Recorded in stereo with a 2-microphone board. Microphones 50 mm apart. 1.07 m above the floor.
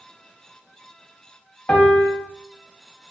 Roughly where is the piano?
Left.